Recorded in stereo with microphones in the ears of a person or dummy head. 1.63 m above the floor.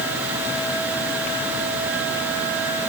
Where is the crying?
No crying in this recording.